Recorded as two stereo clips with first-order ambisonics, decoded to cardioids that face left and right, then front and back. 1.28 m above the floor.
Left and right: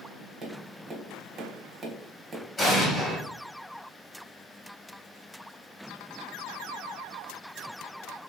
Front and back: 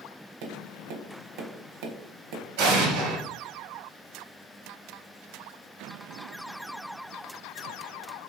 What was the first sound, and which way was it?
Tapping, 160° right.